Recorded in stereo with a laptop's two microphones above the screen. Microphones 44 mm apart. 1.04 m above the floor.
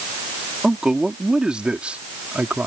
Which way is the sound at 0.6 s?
10° right (ahead or behind).